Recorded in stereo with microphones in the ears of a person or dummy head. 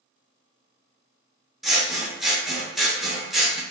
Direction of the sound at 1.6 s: 5° right (ahead or behind).